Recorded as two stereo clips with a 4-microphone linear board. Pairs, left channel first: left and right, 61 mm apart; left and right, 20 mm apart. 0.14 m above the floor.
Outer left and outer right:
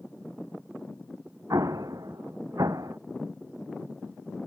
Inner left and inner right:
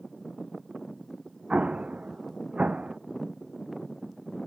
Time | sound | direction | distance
1.5 | an explosion | 75° right (ahead or behind) | ?